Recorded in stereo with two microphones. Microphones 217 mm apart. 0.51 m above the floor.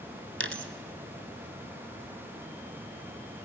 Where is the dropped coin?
75° right (ahead or behind), 1.1 m.